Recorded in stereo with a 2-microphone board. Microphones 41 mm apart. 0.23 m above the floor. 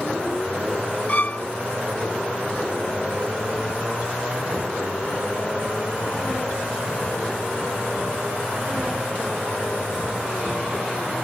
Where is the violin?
40° left (ahead or behind).